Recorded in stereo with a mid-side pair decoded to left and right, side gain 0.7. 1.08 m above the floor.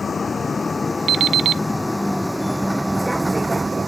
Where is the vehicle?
20° left; by 3.9 s 20° right.